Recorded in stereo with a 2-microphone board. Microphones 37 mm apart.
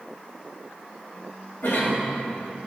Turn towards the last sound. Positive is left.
turn(degrees=80)